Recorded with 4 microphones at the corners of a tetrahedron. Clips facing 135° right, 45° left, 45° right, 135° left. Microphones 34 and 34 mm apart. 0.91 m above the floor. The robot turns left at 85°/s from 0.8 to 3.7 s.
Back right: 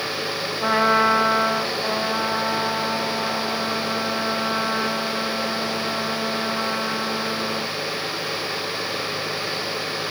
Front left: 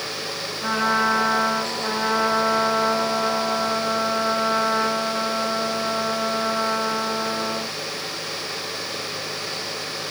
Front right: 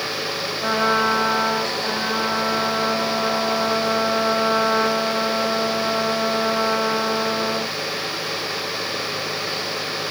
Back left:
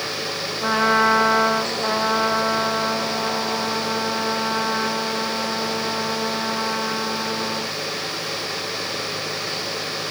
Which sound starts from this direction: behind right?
A trumpet, at 0.6 s.